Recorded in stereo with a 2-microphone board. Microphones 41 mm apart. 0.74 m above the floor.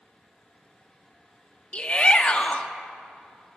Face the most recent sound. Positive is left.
turn(degrees=30)  # may be behind; listen again after turning